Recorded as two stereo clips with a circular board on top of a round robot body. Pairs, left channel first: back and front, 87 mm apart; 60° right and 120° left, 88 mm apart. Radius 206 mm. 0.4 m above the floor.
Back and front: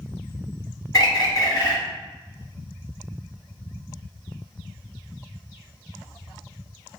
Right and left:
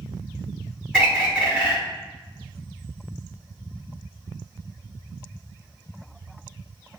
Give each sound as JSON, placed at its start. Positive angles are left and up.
{"t": 0.9, "sound": "a bird", "azimuth_deg": -170, "distance_m": 1.6}